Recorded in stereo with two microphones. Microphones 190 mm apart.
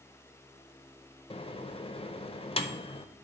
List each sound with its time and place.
1.3 s a microwave: 30° left (ahead or behind), 0.5 m